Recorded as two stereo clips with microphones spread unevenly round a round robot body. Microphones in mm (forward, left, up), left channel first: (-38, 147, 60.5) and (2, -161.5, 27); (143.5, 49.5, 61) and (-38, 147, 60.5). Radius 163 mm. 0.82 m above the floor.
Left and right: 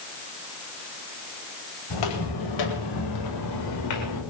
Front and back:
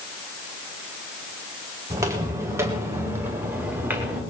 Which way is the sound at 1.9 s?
75° left.